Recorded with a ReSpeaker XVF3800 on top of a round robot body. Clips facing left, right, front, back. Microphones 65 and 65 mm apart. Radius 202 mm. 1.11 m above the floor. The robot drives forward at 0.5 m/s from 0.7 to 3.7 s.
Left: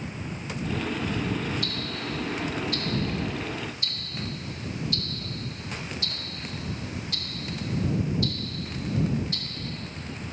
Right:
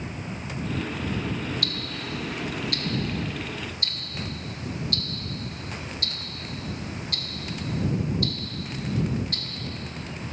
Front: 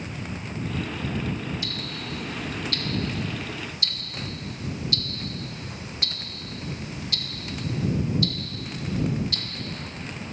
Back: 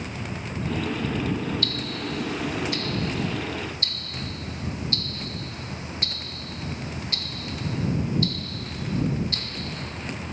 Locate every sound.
1.6 s ticking: 75° right, 1.3 m; by 9.4 s 125° right, 1.4 m